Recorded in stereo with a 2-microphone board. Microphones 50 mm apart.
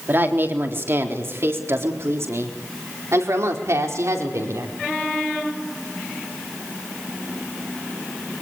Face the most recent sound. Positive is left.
turn(degrees=-75)  # may be behind; listen again after turning